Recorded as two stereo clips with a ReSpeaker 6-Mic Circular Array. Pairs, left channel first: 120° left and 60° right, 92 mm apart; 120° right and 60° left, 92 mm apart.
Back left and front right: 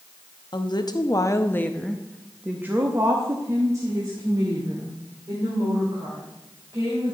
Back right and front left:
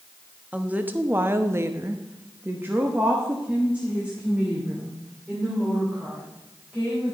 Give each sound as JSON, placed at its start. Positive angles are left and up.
{"t": 0.5, "sound": "a woman speaking", "azimuth_deg": 130, "distance_m": 0.9}